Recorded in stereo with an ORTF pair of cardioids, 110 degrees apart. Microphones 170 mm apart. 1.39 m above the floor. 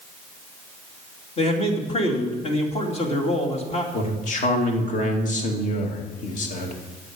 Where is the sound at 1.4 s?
40° left, 2.5 m.